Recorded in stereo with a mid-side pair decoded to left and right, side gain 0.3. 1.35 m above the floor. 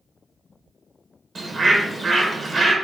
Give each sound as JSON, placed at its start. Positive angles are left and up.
{"t": 1.4, "sound": "a bird", "azimuth_deg": -50, "distance_m": 1.7}